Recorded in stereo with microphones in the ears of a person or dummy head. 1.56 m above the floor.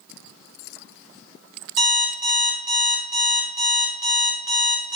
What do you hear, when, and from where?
1.8 s an alarm clock: 60° right (ahead or behind), 1.3 m